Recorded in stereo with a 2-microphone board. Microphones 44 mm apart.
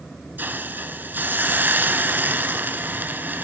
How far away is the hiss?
About 0.9 m.